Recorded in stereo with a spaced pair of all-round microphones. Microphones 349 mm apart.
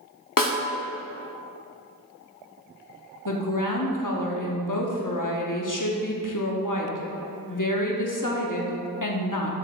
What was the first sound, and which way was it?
A snare drum, 65° left (ahead or behind).